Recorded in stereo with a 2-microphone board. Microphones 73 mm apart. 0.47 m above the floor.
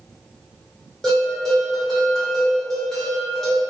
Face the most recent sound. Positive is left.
turn(degrees=5)  # may be behind; listen again after turning